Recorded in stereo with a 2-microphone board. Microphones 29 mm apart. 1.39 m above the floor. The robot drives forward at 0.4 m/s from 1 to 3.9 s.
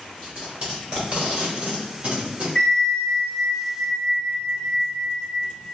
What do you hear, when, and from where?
0.2 s tape being pulled: 35° right (ahead or behind), 1.7 m; by 2.5 s 45° right (ahead or behind), 1.4 m
2.5 s a bell: 20° left (ahead or behind), 1.2 m; by 5.5 s 15° left (ahead or behind), 1.5 m